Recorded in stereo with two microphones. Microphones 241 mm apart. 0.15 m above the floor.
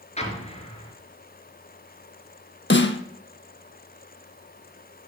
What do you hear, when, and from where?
0.2 s an explosion: 25° left (ahead or behind), 1.9 m
2.7 s a snare drum: 50° left (ahead or behind), 0.9 m